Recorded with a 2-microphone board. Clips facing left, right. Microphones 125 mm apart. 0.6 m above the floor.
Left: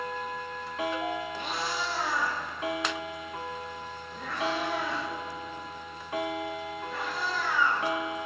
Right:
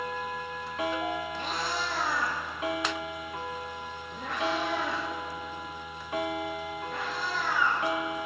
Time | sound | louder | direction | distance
1.4 | a cat meowing | even | 40° right (ahead or behind) | 3 m